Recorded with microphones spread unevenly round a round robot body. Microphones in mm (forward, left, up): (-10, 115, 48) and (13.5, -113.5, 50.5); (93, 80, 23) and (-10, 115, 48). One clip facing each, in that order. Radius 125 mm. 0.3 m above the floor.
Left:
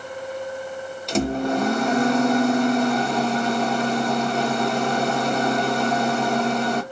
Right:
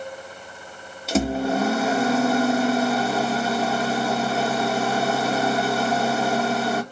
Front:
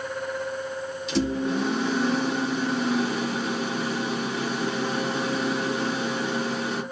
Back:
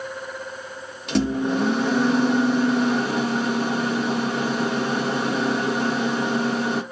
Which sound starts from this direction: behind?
A microwave, at 1.1 s.